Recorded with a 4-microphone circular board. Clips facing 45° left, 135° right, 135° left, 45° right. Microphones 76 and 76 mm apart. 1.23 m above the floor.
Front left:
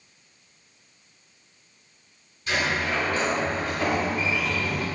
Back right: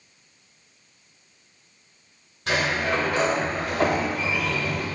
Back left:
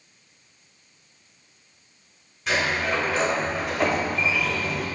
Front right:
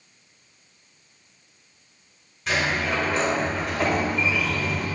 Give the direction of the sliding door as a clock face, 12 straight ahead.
4 o'clock.